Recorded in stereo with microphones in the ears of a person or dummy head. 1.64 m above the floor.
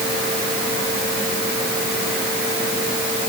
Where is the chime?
No chime in this recording.